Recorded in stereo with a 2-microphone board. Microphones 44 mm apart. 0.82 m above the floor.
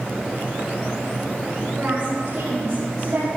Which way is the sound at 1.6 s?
25° right (ahead or behind).